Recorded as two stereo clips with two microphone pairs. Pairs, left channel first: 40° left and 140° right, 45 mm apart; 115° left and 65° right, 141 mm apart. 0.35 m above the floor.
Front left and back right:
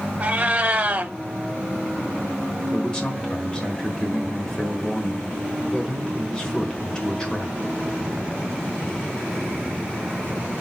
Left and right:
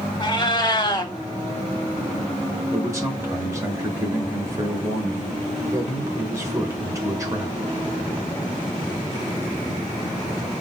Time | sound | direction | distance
0.2 | a cat meowing | 170° left | 0.7 m
2.7 | a man speaking | 20° right | 1.1 m